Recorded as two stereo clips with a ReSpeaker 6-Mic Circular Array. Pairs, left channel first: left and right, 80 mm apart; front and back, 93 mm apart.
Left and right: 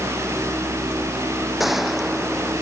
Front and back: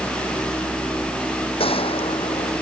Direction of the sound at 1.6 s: Straight ahead.